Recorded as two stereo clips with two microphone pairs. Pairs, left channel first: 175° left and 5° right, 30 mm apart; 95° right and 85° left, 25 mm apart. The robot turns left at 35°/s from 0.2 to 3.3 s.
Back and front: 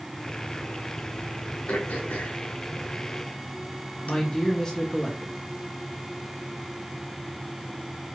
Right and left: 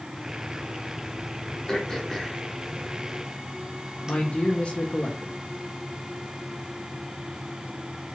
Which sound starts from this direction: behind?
Throat clearing, at 1.7 s.